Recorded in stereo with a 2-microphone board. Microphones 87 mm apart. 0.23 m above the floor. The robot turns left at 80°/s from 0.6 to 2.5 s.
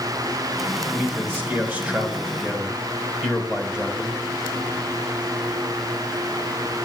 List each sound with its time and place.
0.9 s a man speaking: 10° right (ahead or behind), 1.5 m